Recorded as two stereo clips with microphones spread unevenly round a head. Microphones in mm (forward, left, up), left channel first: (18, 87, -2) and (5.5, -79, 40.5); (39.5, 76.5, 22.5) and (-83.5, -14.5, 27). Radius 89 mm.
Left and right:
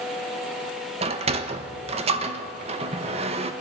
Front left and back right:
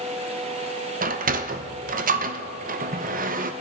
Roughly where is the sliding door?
Behind right.